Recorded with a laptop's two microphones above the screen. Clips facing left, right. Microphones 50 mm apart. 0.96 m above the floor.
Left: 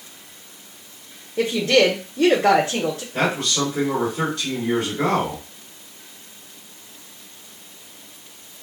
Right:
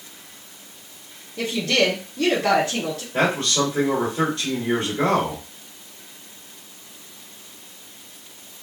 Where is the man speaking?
45° right (ahead or behind), 2.5 m.